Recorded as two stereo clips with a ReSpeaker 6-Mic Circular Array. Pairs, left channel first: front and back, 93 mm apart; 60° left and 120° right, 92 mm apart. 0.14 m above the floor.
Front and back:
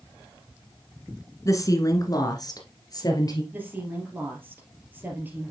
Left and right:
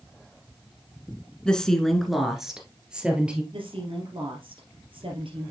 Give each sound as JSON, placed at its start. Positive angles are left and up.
{"t": 1.4, "sound": "a woman speaking", "azimuth_deg": -15, "distance_m": 1.2}
{"t": 3.5, "sound": "a woman speaking", "azimuth_deg": -110, "distance_m": 3.0}